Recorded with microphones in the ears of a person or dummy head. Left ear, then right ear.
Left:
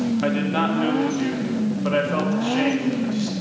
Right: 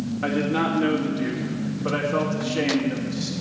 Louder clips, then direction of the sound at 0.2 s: Right 1 dB; 30° left (ahead or behind).